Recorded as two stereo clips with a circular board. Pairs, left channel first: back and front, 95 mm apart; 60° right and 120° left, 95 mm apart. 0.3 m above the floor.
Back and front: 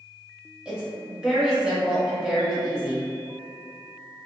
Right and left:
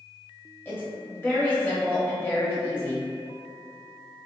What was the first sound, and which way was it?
A woman speaking, 65° right.